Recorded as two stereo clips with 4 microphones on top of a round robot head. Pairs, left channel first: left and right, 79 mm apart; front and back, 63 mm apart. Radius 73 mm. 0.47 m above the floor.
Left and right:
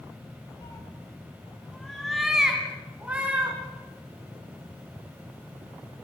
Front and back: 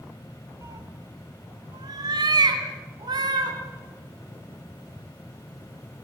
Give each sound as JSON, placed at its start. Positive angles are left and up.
{"t": 0.6, "sound": "a cat meowing", "azimuth_deg": 145, "distance_m": 1.5}